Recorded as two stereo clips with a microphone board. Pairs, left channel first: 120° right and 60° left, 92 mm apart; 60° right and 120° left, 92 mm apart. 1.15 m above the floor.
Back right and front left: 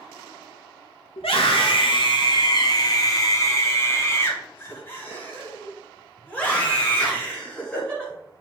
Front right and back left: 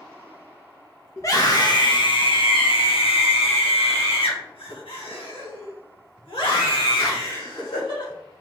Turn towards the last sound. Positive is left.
turn(degrees=-40)